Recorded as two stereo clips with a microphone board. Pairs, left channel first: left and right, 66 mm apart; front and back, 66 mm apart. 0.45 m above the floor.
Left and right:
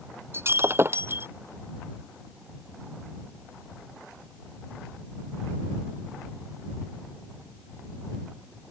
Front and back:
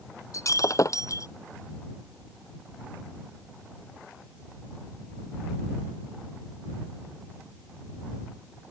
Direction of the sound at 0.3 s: 35° right.